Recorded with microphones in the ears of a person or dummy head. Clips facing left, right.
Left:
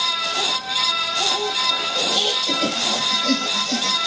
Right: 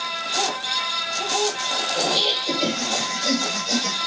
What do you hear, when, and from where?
1.9 s laughter: 5° left (ahead or behind), 7 m; by 4.0 s 5° right (ahead or behind), 8.5 m